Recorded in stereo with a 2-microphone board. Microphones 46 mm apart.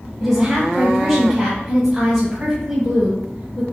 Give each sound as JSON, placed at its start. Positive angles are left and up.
{"t": 0.2, "sound": "a woman speaking", "side_deg": -10, "distance_m": 1.3}